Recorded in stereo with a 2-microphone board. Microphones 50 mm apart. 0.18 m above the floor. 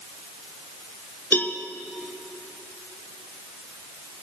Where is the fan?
No fan in this recording.